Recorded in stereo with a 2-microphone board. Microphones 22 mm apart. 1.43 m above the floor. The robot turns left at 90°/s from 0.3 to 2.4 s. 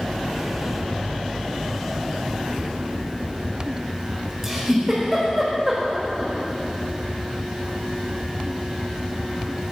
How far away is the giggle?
About 4 m.